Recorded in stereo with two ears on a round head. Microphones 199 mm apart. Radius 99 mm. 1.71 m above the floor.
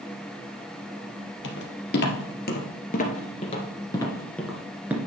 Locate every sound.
1.4 s footsteps: 55° left (ahead or behind), 3 m; by 5.0 s 10° right (ahead or behind), 1.6 m